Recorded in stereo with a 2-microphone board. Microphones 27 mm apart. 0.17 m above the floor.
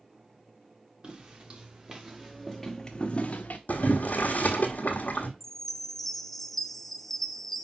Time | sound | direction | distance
1.0 | footsteps | 40° right (ahead or behind) | 2.5 m
3.7 | boiling | 85° left | 1.2 m
5.4 | a chime | 15° left (ahead or behind) | 0.5 m